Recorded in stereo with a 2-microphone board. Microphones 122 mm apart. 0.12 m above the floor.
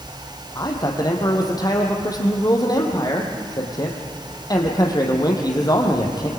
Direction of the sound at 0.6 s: 35° left (ahead or behind).